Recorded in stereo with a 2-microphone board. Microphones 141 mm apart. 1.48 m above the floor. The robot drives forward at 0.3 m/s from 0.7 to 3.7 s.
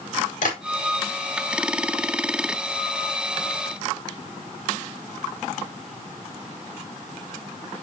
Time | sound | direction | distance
0.4 | tapping | 75° left (ahead or behind) | 5 m